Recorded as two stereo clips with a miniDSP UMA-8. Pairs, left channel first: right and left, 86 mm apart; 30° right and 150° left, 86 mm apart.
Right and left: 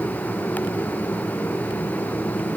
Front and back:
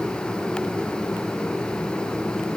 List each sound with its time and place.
Only background noise.